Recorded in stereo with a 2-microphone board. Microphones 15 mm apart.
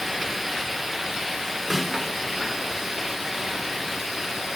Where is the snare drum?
Centre (ahead or behind), 4 m.